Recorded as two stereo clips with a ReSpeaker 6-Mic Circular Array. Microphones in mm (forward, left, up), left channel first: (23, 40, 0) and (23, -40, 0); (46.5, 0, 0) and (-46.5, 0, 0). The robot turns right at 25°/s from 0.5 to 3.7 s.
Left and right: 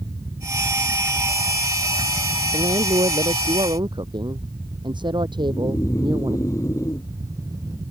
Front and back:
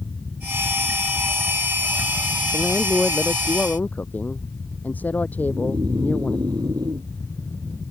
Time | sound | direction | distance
2.5 | a woman speaking | 100° right | ?
5.4 | snoring | 140° left | ?